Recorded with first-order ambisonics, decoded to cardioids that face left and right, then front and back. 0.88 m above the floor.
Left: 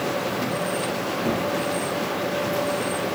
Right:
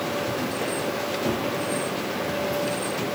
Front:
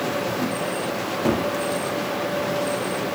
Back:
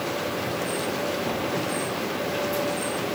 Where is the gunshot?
Straight ahead, 0.6 m.